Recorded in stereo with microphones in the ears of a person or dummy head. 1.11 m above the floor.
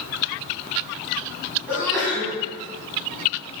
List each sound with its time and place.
1.7 s a sneeze: 5° right (ahead or behind), 1.3 m